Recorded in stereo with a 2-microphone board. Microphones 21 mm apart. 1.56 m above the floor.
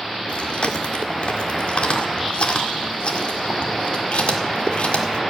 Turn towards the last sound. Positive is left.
turn(degrees=55)  # may be behind; listen again after turning